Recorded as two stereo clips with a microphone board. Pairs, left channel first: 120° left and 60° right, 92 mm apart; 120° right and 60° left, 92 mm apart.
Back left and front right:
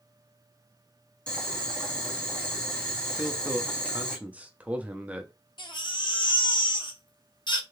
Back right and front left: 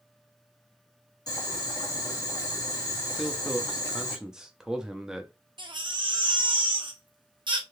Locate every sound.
1.3 s boiling: 165° right, 1.6 m
3.2 s a man speaking: 10° right, 0.5 m
5.6 s a baby crying: 90° left, 0.7 m